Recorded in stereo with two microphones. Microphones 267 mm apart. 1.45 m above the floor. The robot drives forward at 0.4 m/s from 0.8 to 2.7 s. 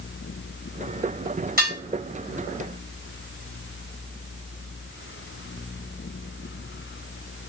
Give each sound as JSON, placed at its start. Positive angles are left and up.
{"t": 1.6, "sound": "dishes clattering", "side_deg": -30, "distance_m": 5.5}